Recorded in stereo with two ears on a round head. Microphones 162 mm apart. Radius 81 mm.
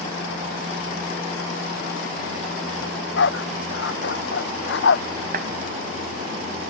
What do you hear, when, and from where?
2.8 s a dog barking: 70° left (ahead or behind)
5.3 s a clap: 50° right (ahead or behind)